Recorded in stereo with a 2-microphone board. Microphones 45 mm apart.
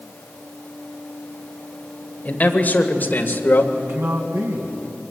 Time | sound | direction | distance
2.2 | a man speaking | 35° left (ahead or behind) | 2.5 m
3.7 | a man speaking | 75° right (ahead or behind) | 3 m